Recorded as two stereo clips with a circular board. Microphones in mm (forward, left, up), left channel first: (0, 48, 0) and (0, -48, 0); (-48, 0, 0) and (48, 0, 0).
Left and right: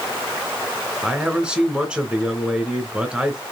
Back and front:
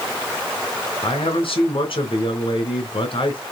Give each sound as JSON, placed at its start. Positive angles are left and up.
{"t": 1.0, "sound": "a man speaking", "azimuth_deg": -170, "distance_m": 3.0}